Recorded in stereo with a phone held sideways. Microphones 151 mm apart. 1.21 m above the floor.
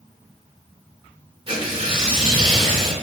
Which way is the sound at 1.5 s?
35° right (ahead or behind).